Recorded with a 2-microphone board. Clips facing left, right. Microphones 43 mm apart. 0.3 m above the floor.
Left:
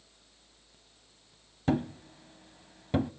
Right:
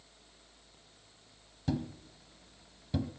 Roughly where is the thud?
Left.